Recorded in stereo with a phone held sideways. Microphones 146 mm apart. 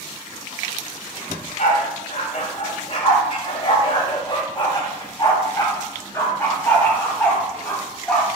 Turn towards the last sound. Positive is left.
turn(degrees=10)  # may be behind; listen again after turning